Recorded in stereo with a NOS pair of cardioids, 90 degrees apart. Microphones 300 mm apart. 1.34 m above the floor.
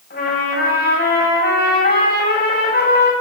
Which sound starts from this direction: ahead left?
A trumpet, at 0.1 s.